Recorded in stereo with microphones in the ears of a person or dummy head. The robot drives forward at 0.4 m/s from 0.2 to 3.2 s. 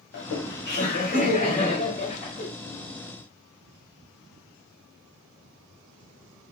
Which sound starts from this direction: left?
Laughter, at 0.1 s.